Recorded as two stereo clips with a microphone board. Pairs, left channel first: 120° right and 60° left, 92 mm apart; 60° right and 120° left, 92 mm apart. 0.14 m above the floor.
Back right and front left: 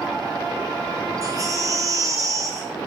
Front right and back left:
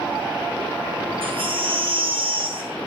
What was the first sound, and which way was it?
A baby crying, 110° left.